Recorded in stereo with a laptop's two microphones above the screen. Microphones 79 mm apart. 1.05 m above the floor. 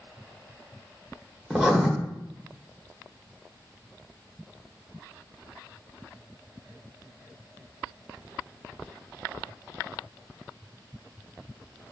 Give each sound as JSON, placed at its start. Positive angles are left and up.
{"t": 1.5, "sound": "writing", "side_deg": -5, "distance_m": 0.8}